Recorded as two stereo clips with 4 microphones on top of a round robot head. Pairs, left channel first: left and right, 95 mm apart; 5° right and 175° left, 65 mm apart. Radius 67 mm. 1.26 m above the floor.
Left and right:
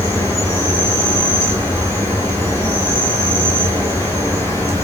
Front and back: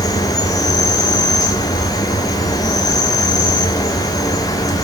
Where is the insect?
20° left, 1.8 m.